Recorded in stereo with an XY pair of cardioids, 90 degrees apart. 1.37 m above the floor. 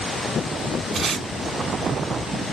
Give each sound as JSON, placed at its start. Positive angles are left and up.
{"t": 0.9, "sound": "tape being pulled", "azimuth_deg": -70, "distance_m": 1.2}